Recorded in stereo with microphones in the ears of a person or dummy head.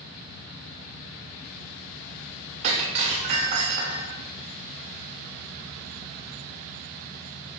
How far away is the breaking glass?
About 2.5 m.